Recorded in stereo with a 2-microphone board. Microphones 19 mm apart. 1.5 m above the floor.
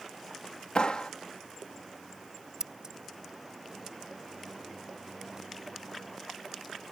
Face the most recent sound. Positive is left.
turn(degrees=-35)  # may be behind; listen again after turning